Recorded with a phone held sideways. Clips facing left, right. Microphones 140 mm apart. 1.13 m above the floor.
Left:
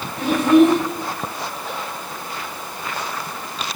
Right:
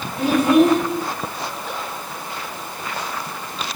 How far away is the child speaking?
About 1.4 m.